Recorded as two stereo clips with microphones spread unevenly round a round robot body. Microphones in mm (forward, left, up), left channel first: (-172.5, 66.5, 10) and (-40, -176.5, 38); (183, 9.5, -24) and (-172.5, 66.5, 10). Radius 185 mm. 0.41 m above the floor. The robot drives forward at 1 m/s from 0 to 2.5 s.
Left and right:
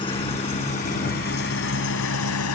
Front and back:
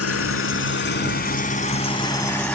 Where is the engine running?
40° left; by 2.6 s 75° left.